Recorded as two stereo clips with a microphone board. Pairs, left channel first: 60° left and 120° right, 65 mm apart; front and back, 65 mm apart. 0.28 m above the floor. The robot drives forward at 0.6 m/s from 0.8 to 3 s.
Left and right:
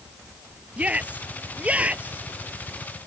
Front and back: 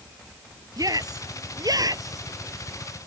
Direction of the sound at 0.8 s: 170° left.